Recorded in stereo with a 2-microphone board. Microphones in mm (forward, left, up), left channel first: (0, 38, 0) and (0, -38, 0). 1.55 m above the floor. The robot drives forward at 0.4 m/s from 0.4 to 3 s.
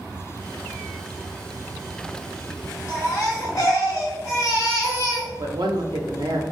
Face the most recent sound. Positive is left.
turn(degrees=-80)